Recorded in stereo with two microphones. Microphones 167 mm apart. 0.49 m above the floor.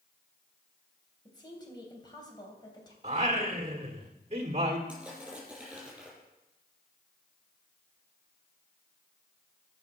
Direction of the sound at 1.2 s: 25° left (ahead or behind).